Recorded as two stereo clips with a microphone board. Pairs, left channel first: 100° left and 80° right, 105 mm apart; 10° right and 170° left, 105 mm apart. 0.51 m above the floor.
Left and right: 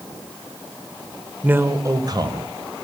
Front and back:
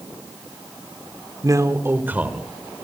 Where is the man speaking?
150° right, 1.6 m; by 2.5 s 115° right, 2.5 m.